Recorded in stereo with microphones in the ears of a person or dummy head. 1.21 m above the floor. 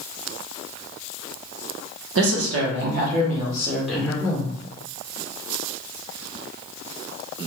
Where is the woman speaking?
75° right (ahead or behind), 0.8 m; by 4.5 s 20° left (ahead or behind), 0.9 m.